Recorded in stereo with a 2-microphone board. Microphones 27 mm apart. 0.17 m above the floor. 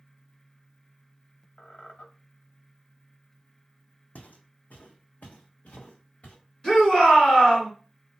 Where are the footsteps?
70° left (ahead or behind), 0.6 m; by 6.4 s 60° left (ahead or behind), 1.5 m.